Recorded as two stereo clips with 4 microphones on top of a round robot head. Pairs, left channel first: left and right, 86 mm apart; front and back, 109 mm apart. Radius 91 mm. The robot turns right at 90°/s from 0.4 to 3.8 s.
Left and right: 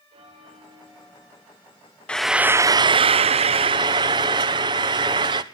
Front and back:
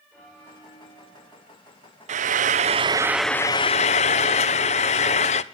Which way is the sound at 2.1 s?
165° left.